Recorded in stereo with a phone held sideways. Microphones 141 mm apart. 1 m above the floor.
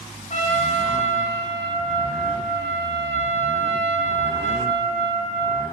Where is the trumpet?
55° left (ahead or behind), 0.6 m.